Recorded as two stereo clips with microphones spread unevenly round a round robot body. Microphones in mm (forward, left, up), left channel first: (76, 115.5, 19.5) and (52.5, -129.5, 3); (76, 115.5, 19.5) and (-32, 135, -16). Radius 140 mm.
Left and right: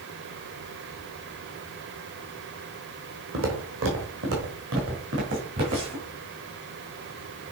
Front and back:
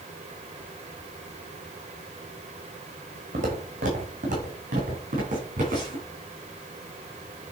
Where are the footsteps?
145° right, 2.5 m.